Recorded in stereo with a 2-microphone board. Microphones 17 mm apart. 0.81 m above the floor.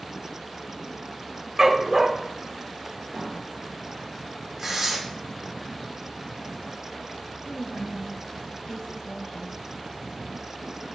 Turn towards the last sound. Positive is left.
turn(degrees=55)  # may be behind; listen again after turning